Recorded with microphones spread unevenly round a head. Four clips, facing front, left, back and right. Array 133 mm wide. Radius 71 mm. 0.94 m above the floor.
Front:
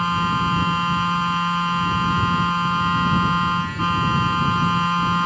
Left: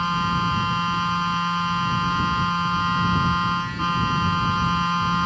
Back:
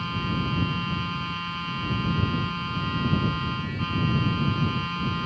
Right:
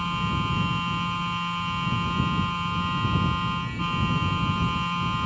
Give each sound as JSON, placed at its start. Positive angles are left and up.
{"t": 0.0, "sound": "a machine running", "azimuth_deg": 20}